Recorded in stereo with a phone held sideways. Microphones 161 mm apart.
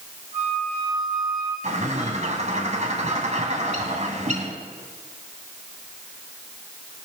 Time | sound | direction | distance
0.3 | a flute | 65° right (ahead or behind) | 6 m
1.6 | a bird | 50° right (ahead or behind) | 1.9 m